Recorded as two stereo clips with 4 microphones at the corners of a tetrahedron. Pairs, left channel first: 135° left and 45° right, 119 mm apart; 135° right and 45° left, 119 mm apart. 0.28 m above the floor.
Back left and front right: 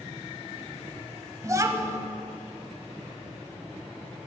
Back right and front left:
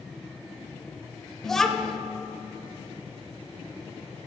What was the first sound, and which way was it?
A child speaking, 50° right.